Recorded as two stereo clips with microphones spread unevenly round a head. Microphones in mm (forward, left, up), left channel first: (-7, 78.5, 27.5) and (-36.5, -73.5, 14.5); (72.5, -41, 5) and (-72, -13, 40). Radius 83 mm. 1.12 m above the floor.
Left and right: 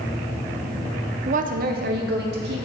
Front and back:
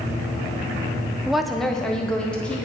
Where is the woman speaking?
90° right, 0.5 m.